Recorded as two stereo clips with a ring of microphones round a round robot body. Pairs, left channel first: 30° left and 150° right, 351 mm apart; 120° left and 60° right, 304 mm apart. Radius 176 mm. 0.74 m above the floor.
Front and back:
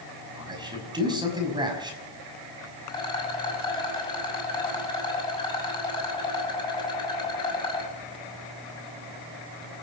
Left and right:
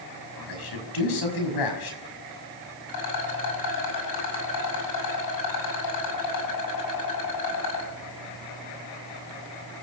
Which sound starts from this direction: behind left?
A man speaking, at 0.4 s.